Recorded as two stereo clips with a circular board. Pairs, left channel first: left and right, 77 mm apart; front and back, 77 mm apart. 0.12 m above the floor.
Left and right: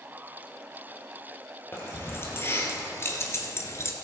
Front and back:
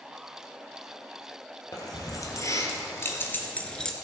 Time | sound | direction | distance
1.7 | keys jangling | 35° left | 2.5 m